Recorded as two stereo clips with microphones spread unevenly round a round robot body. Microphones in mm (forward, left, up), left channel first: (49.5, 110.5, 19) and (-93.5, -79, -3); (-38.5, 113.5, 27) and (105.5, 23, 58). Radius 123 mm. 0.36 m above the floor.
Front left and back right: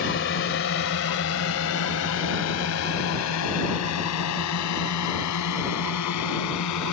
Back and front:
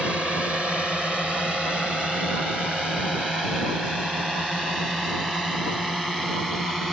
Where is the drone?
60° left.